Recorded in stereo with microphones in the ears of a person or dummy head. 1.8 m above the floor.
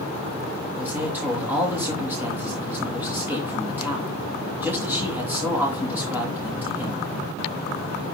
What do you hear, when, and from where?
0.8 s a man speaking: 5° right (ahead or behind), 3 m